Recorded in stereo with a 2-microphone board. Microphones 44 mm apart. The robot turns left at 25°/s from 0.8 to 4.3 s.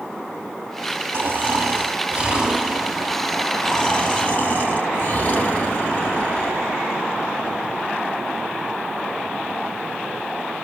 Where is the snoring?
130° right, 2.5 m; by 6.8 s 150° left, 2.5 m.